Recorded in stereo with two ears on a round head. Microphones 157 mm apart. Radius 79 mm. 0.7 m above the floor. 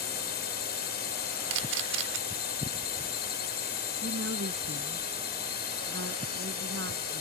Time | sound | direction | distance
0.0 | a drone | 60° left (ahead or behind) | ?
1.5 | a camera shutter | 85° right | ?
4.0 | a woman speaking | 70° right (ahead or behind) | ?